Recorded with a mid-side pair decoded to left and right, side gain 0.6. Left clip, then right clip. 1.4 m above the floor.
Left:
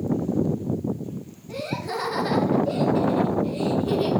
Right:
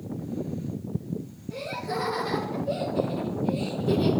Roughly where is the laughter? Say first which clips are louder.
Left 2 dB; ahead left.